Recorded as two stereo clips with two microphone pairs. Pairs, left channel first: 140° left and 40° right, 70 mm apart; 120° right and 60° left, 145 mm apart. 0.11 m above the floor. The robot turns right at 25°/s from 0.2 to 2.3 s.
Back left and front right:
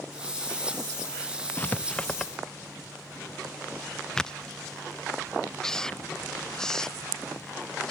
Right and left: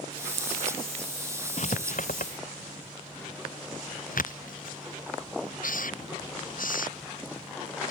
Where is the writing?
155° right; by 7.9 s 140° right.